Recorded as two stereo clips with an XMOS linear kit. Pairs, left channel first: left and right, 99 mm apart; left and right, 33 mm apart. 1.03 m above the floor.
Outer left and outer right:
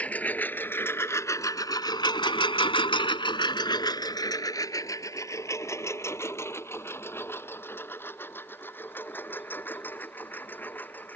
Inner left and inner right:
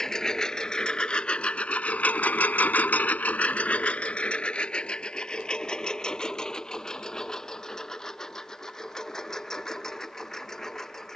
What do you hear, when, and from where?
0.0 s a lawn mower: 15° left (ahead or behind)